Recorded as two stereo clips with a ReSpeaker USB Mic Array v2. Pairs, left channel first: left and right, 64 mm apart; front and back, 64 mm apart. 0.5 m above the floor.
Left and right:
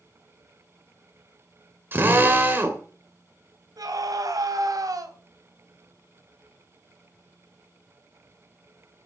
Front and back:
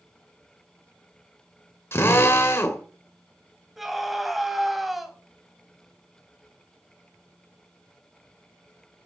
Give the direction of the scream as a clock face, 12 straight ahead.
3 o'clock.